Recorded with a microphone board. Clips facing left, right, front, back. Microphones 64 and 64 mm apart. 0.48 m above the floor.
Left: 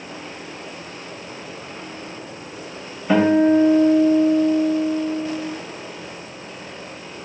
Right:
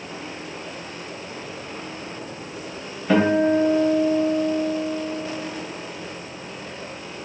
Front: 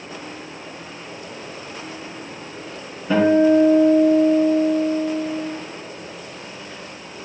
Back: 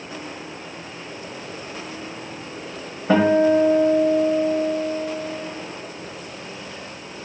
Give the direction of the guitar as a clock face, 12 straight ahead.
6 o'clock.